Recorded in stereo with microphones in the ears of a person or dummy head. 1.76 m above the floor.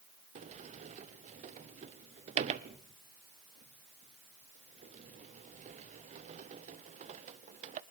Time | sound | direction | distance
0.3 | a sliding door | 40° right (ahead or behind) | 0.7 m